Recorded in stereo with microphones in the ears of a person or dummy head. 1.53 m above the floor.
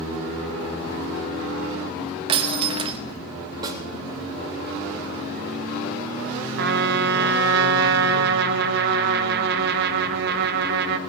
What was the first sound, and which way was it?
Breaking glass, 30° right (ahead or behind).